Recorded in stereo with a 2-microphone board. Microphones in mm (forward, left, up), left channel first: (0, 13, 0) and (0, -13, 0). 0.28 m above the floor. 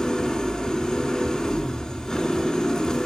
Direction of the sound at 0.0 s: 20° left (ahead or behind).